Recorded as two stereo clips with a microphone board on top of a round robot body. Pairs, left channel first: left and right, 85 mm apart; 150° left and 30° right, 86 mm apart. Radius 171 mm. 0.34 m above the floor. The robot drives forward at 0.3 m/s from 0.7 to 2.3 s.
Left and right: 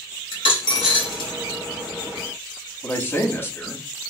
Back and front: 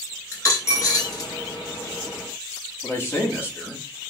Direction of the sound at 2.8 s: 125° left.